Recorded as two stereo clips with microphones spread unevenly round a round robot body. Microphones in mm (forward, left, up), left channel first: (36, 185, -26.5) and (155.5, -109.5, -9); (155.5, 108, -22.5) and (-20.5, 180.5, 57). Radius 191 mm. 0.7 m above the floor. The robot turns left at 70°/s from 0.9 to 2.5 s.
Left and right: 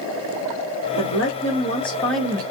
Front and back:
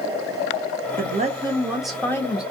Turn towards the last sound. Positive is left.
turn(degrees=0)